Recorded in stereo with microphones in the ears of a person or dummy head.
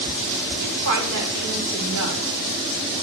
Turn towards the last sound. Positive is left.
turn(degrees=-80)